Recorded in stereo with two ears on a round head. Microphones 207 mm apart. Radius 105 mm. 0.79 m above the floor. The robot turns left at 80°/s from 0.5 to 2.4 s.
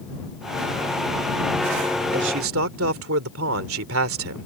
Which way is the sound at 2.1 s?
40° right (ahead or behind).